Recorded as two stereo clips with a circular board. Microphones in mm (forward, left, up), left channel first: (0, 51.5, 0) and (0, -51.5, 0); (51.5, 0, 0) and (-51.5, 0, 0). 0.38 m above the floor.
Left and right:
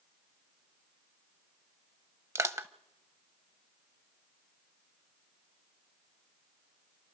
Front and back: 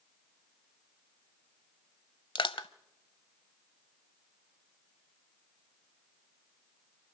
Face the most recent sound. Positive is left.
turn(degrees=-30)